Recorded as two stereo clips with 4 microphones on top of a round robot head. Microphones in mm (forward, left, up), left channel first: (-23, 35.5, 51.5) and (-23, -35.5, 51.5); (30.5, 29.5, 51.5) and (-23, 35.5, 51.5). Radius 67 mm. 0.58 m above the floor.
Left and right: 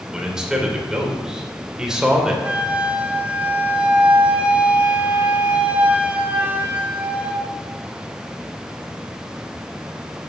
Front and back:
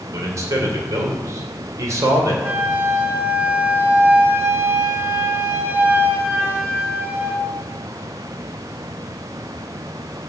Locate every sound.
0.1 s a man speaking: 170° right, 2.5 m
2.4 s a flute: 155° right, 1.6 m